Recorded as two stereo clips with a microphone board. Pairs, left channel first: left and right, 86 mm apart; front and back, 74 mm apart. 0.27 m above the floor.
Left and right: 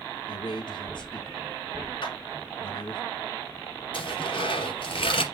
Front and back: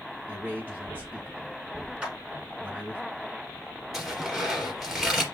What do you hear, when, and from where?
0.3 s a man speaking: 110° left, 3 m
2.0 s a clap: 105° left, 3.5 m
3.9 s tearing paper: 95° left, 3 m